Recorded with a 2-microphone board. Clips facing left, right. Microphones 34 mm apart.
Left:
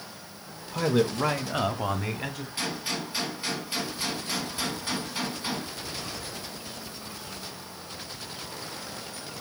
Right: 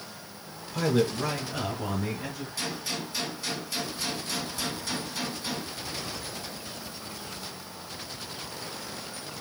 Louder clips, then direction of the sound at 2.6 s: Left 2 dB; 30° left (ahead or behind).